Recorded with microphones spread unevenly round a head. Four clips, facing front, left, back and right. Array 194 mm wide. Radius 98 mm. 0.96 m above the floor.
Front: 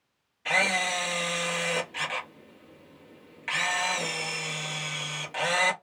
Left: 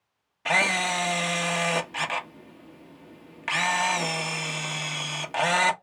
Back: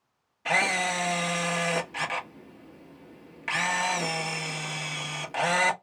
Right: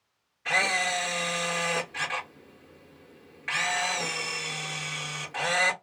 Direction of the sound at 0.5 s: 120° left.